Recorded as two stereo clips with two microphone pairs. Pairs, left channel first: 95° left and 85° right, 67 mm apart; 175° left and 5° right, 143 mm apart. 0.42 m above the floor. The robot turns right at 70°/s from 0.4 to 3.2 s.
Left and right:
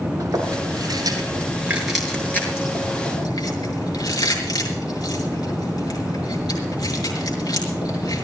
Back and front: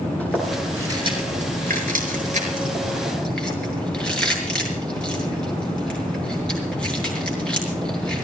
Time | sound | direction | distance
0.2 | chewing | 105° right | 6.5 m